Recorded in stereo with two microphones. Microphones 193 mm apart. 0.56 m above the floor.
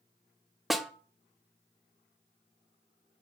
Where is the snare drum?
Centre (ahead or behind), 1.0 m.